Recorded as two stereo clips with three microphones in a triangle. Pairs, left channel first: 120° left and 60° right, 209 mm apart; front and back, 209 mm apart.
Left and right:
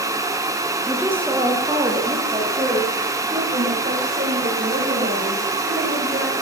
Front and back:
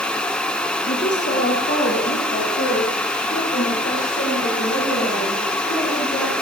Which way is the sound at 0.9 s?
25° left.